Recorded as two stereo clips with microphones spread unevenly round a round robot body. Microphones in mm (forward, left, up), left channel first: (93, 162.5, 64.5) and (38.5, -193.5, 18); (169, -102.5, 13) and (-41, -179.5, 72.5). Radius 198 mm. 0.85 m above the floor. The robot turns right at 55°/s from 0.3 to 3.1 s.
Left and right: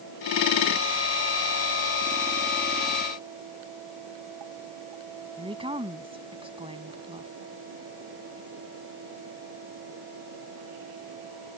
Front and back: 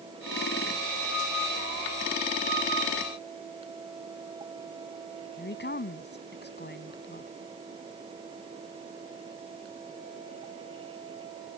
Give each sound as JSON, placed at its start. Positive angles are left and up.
{"t": 5.4, "sound": "a woman speaking", "azimuth_deg": -25}